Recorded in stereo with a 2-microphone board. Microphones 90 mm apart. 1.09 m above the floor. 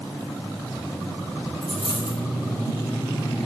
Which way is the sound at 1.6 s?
80° left.